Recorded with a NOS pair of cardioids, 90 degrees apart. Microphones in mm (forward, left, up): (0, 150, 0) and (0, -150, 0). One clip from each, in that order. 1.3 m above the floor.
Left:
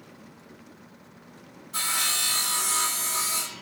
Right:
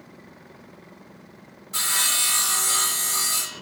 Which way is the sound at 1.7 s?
45° right.